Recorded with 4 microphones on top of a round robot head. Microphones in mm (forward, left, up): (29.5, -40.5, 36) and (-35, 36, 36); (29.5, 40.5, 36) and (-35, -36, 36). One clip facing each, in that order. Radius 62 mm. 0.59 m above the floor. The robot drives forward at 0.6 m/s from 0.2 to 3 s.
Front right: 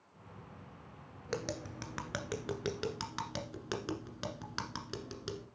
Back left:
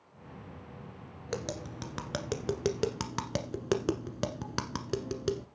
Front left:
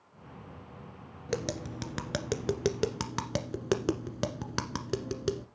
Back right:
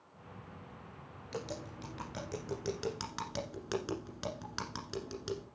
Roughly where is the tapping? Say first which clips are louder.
Back left 2 dB, front left 8 dB; ahead left.